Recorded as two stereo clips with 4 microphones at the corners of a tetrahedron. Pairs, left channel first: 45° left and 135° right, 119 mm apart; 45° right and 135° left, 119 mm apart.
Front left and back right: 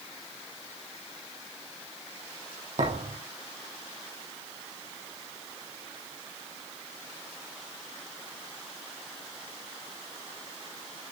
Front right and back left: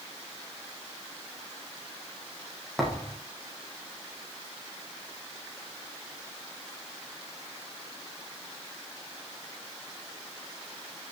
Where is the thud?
135° right, 5.5 m.